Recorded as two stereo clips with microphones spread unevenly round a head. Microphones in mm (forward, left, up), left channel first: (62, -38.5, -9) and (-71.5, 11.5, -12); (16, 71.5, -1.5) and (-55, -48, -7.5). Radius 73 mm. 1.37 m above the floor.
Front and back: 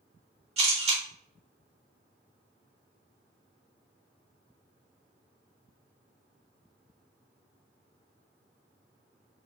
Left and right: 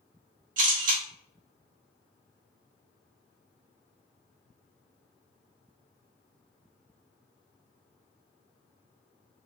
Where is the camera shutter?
155° right, 1.7 m.